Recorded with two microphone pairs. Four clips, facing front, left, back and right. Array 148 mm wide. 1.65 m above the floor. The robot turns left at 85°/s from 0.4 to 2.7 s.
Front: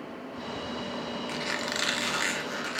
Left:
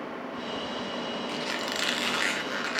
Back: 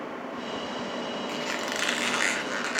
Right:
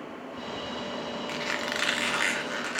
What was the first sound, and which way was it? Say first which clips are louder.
A squeak: even, back 2 dB; 70° right.